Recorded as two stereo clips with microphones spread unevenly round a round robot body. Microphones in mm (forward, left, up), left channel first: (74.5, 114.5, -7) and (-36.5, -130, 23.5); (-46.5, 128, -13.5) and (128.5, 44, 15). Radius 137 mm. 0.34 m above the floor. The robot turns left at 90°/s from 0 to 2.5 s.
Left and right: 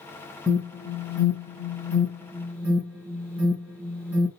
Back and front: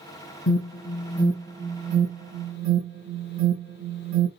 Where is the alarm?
155° left, 3.5 m; by 4.3 s 30° right, 3.5 m.